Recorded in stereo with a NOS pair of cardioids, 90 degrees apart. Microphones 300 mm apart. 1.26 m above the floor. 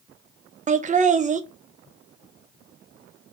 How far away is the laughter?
About 0.5 m.